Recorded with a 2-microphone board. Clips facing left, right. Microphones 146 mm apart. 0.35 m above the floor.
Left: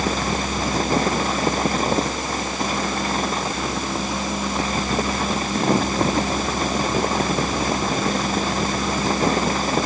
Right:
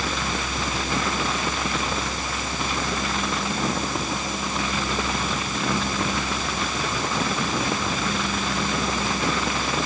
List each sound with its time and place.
Only background noise.